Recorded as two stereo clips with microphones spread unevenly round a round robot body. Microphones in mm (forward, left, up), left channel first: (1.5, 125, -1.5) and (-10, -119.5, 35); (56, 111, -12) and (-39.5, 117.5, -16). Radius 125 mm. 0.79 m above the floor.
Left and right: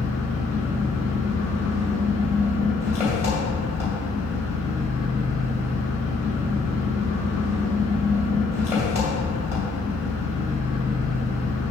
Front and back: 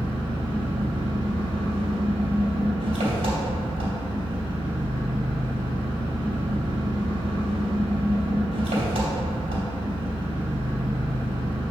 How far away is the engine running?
About 2.5 m.